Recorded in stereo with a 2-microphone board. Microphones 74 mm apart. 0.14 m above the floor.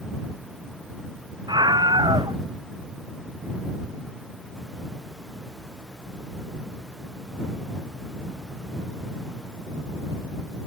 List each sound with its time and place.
1.5 s a scream: 85° right